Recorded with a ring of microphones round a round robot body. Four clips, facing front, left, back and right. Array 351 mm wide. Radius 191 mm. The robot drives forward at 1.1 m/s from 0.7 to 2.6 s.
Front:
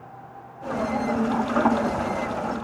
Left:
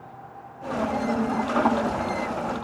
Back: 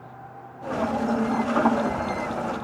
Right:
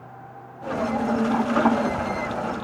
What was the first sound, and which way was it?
Only background noise.